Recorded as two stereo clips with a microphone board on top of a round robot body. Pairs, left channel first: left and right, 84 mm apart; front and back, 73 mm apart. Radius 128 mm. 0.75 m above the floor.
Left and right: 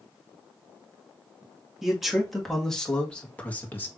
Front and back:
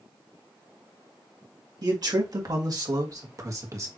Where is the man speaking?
175° right, 2.0 m; by 3.9 s 150° left, 1.5 m.